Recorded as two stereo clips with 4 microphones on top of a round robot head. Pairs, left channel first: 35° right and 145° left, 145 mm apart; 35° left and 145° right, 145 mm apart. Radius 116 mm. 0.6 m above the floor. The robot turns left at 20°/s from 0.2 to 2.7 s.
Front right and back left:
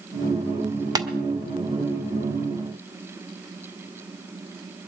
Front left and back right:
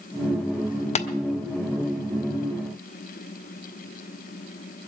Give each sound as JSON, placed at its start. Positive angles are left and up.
{"t": 0.9, "sound": "tapping", "azimuth_deg": 80, "distance_m": 1.3}